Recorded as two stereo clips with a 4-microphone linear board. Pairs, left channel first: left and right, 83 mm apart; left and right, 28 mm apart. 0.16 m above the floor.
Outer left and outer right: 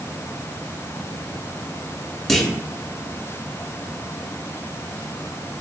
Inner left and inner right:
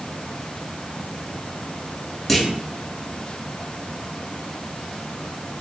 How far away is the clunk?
About 0.6 m.